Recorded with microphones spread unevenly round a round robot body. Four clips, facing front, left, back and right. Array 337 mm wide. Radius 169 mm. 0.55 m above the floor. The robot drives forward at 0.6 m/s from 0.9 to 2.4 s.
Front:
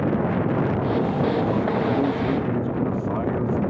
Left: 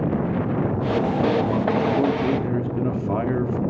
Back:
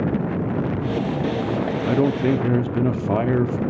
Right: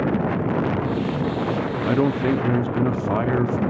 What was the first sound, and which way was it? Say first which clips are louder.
A man speaking: even, back 3 dB; 145° right.